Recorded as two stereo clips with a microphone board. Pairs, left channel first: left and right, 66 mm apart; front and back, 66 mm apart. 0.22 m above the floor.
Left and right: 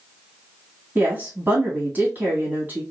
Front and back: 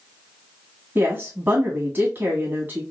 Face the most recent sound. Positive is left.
turn(degrees=-135)